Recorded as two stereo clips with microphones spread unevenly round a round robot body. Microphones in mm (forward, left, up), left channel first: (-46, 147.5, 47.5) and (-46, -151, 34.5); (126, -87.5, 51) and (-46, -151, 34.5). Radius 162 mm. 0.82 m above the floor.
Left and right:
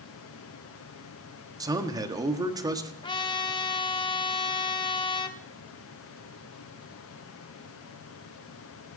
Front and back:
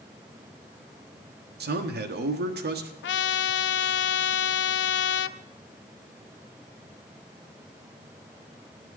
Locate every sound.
1.6 s a man speaking: 165° right, 1.6 m
3.0 s a trumpet: 15° left, 0.6 m